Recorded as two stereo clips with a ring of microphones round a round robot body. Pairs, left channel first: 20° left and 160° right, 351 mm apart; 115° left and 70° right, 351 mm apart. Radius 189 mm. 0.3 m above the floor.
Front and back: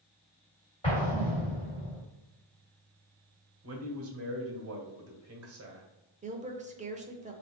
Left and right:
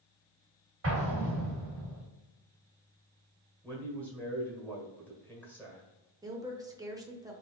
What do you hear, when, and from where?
0.8 s an explosion: 45° right, 1.8 m
3.6 s a man speaking: 165° right, 1.7 m
6.2 s a woman speaking: 130° right, 0.9 m